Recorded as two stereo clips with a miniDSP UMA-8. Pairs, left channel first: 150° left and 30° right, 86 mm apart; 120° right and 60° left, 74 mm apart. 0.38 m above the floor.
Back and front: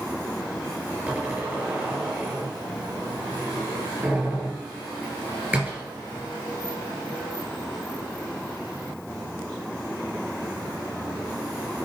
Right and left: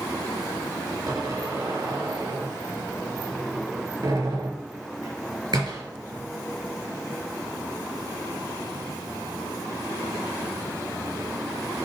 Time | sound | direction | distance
1.1 | a door slam | 40° left | 4.5 m